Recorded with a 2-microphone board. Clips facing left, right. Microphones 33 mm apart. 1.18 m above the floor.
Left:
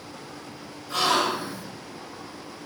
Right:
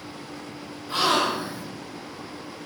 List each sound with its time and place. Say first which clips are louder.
0.9 s a gasp: right 1 dB; 35° right (ahead or behind), 1.3 m